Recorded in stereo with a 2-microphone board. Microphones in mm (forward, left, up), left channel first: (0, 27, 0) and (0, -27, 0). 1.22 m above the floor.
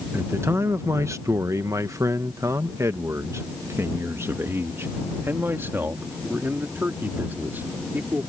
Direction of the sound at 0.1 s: 45° right (ahead or behind).